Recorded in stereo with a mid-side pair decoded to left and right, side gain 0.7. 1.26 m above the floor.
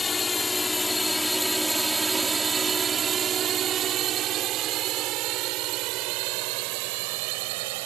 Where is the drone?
20° left; by 7.9 s 75° right.